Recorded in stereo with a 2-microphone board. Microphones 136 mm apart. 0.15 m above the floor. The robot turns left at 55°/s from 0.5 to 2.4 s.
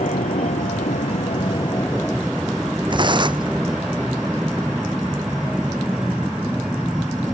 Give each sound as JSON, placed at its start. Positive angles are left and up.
{"t": 0.0, "sound": "an aircraft", "azimuth_deg": 100}
{"t": 2.9, "sound": "tearing paper", "side_deg": -35}